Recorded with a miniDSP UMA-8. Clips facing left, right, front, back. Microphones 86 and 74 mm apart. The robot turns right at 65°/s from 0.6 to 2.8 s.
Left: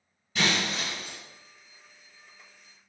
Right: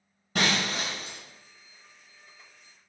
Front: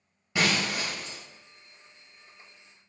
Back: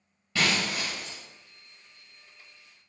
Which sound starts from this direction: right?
Breaking glass, at 0.3 s.